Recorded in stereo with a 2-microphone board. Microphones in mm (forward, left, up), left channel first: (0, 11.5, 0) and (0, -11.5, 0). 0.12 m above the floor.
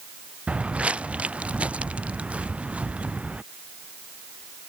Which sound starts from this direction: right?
Footsteps, at 0.5 s.